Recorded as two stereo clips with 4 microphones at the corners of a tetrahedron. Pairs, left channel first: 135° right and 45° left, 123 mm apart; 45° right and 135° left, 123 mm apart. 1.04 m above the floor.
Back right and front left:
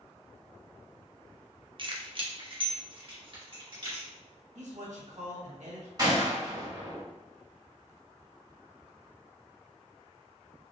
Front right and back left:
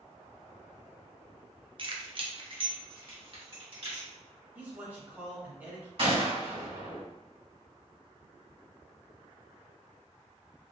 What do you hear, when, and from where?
1.8 s keys jangling: 90° left, 0.6 m
4.5 s a man speaking: 60° left, 1.7 m
6.0 s a gunshot: 100° left, 2 m